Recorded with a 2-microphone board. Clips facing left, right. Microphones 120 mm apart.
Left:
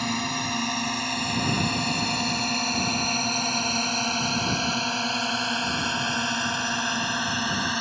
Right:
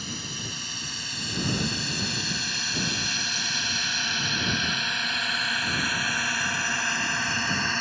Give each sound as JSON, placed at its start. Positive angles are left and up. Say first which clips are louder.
{"t": 0.0, "sound": "a drone", "louder": "left 10 dB", "side_deg": 70}